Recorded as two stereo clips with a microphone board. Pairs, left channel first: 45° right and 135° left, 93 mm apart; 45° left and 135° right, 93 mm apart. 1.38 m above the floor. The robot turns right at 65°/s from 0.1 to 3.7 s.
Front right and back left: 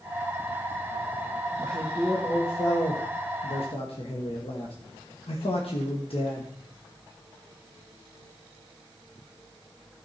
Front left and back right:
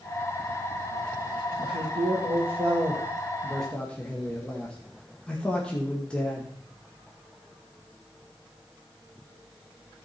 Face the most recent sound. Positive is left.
turn(degrees=-35)